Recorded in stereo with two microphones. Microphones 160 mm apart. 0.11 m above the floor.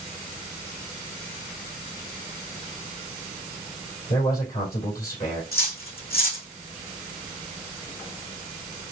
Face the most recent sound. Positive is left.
turn(degrees=75)  # may be behind; listen again after turning